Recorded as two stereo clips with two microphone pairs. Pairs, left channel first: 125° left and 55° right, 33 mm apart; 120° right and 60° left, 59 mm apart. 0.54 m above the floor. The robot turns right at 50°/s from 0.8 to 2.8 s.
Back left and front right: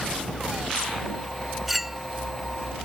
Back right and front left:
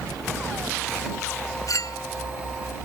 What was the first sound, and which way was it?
A clink, 145° right.